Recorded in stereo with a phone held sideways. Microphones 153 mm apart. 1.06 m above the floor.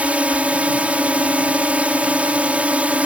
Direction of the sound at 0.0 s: 10° right (ahead or behind).